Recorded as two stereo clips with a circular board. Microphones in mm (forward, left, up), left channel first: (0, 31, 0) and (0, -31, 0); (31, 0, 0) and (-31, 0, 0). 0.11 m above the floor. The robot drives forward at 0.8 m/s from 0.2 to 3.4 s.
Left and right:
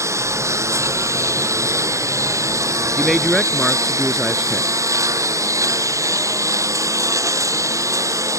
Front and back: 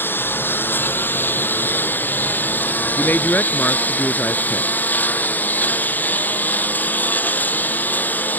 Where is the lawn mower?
55° right; by 8.4 s 60° right.